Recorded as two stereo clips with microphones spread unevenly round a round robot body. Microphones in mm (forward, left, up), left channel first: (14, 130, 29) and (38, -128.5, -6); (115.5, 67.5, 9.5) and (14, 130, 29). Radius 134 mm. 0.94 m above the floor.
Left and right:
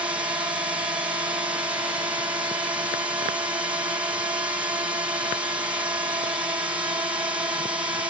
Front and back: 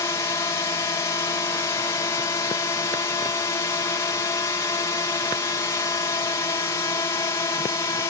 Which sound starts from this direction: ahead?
A drone, at 0.0 s.